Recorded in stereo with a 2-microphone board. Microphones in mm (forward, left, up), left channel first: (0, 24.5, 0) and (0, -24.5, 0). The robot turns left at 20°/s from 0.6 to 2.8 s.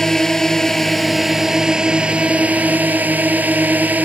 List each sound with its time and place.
0.0 s a drone: 5° left; by 4.1 s 35° right